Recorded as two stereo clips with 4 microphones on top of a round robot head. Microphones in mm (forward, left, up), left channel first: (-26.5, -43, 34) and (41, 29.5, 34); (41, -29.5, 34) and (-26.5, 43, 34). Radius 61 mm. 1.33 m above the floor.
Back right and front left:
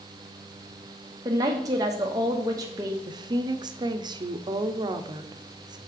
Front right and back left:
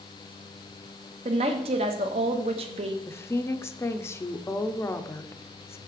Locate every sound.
1.2 s a woman speaking: 105° left, 1.0 m
3.1 s a woman speaking: 10° left, 0.6 m